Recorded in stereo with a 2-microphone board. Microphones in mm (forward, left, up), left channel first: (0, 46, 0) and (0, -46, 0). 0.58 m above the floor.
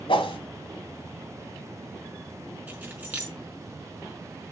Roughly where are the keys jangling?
Centre.